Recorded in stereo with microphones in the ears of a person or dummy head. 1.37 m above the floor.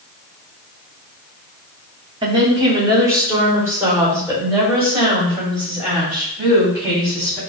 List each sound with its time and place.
2.2 s a woman speaking: 25° right (ahead or behind), 0.9 m; by 7.4 s 10° right (ahead or behind), 3.5 m